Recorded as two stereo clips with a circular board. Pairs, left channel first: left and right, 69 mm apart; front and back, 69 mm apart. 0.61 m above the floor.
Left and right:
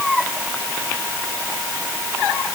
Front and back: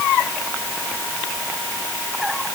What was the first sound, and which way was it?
Only background noise.